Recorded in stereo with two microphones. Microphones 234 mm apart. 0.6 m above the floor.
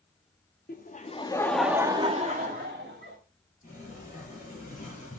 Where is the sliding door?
35° left (ahead or behind), 6.5 m.